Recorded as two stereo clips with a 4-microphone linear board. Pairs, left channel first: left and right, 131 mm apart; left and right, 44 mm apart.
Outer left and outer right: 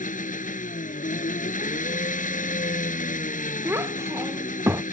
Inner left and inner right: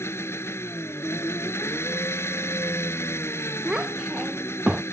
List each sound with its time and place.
0.0 s an engine running: 80° left
3.6 s a child speaking: 20° right (ahead or behind)